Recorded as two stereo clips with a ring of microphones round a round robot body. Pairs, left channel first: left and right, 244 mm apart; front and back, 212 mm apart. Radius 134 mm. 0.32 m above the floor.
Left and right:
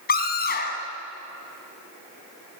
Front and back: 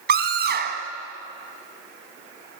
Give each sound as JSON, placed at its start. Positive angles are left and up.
{"t": 0.1, "sound": "a scream", "azimuth_deg": 140, "distance_m": 2.5}